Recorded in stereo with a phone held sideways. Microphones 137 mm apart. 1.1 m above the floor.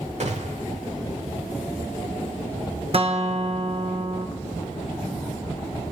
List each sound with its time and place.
0.2 s a gunshot: 55° right (ahead or behind), 1.3 m
2.9 s a guitar: 45° right (ahead or behind), 1.0 m